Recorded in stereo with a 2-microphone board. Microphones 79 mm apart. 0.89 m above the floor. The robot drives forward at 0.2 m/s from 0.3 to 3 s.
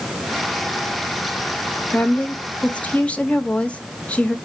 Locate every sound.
1.9 s a woman speaking: 20° left (ahead or behind), 0.8 m; by 4.3 s 15° left (ahead or behind), 0.9 m